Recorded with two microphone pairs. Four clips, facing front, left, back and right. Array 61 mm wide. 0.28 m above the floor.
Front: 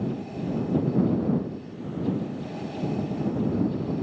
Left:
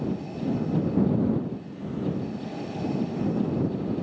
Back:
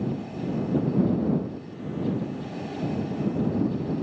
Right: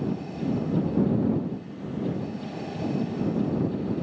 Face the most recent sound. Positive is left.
No sound to turn to.